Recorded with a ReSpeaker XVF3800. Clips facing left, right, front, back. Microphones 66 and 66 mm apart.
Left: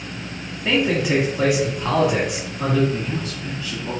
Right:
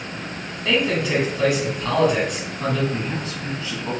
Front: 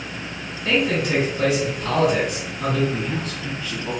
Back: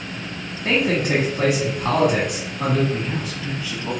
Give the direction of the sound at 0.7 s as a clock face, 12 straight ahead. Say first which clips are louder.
Left 1 dB, back 1 dB; 7 o'clock.